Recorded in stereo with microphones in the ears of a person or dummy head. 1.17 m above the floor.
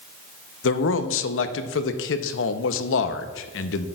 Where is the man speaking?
65° left (ahead or behind), 0.8 m.